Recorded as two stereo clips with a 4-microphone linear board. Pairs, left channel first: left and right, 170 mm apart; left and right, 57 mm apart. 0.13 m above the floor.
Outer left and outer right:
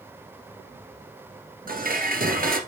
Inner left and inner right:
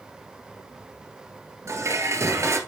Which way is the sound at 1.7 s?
60° right (ahead or behind).